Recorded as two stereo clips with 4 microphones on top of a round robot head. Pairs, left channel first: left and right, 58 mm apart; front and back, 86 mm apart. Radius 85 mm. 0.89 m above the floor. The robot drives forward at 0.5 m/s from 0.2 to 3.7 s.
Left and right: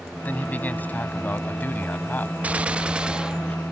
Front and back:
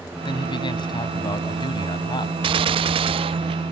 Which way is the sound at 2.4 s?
160° right.